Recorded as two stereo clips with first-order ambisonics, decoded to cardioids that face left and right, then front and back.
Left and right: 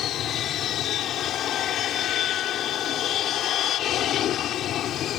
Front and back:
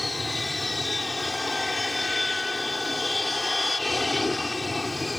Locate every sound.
0.0 s an aircraft: 80° left